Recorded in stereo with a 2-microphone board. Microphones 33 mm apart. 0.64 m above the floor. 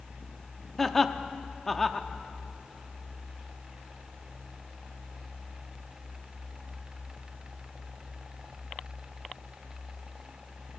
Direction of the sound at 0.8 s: 5° left (ahead or behind).